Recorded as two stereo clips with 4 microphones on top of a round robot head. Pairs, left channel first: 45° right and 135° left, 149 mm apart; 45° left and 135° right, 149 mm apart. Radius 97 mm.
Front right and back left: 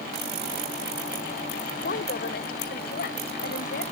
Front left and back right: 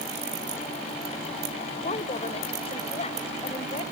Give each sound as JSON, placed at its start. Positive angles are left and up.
{"t": 1.8, "sound": "a woman speaking", "azimuth_deg": -10}